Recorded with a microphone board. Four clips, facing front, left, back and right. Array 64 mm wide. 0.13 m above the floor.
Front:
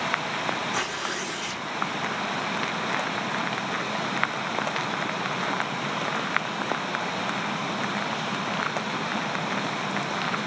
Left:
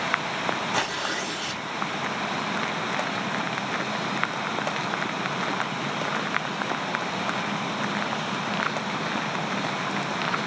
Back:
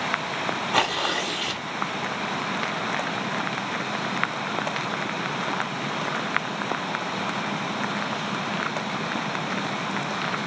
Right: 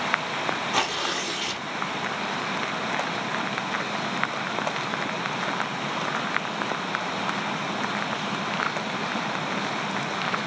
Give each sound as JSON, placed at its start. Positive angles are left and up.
{"t": 0.7, "sound": "tearing paper", "azimuth_deg": -165, "distance_m": 1.5}